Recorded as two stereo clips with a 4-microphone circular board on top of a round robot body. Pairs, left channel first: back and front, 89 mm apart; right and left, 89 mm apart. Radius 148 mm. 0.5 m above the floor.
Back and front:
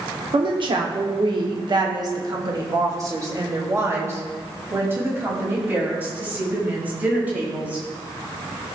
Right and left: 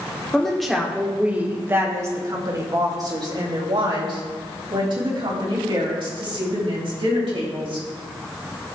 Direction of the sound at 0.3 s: 10° right.